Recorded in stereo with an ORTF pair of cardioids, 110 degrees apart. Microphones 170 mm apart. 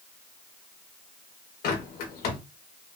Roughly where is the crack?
No crack in this recording.